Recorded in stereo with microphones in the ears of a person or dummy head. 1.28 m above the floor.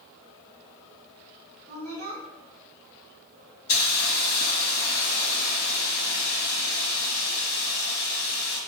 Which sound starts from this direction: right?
A woman speaking, at 1.7 s.